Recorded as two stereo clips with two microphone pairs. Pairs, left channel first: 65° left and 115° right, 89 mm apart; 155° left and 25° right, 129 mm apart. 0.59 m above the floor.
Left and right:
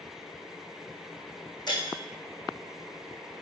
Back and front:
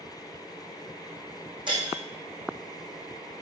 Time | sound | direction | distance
1.7 | breaking glass | 30° left | 3.5 m